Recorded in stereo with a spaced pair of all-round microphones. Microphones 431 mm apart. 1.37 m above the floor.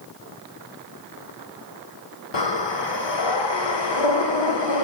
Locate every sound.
2.3 s breathing: 75° left (ahead or behind), 0.8 m